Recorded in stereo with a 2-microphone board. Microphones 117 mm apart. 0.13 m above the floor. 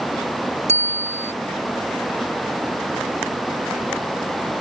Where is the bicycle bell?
70° right (ahead or behind).